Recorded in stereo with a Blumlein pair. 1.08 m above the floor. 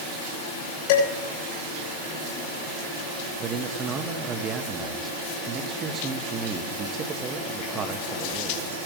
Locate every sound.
0.9 s dishes clattering: 50° left, 6.5 m
3.4 s a man speaking: 25° right, 1.6 m